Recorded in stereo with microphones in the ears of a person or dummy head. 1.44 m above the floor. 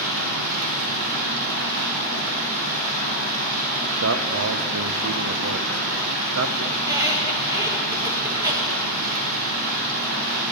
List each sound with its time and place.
0.0 s running water: 85° right, 5 m
4.0 s a man speaking: 85° right, 0.8 m
6.7 s a squeak: 20° right (ahead or behind), 1.4 m